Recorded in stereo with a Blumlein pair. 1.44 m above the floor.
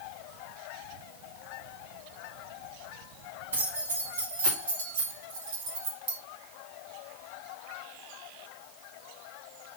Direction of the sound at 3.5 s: 70° right.